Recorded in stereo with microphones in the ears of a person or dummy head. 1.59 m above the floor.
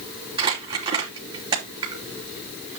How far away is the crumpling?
About 4.5 m.